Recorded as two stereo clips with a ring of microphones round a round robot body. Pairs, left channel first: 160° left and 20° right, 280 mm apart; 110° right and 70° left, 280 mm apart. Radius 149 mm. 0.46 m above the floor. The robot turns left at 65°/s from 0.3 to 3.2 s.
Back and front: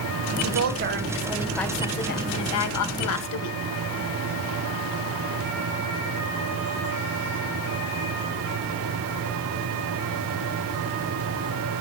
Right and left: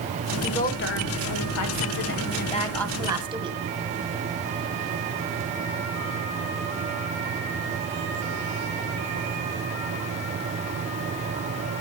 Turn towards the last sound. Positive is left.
turn(degrees=140)